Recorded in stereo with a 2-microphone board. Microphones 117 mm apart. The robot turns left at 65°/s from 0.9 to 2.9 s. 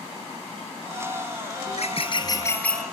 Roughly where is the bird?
Left.